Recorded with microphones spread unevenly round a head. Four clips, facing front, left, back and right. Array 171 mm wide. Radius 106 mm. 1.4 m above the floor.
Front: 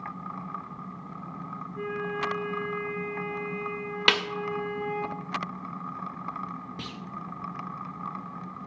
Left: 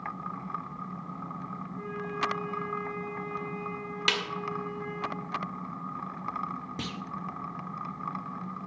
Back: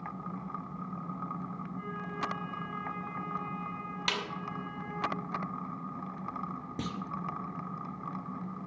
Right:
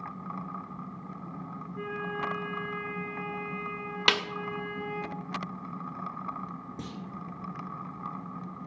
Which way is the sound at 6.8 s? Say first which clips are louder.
Left 3 dB, back 3 dB; 160° right.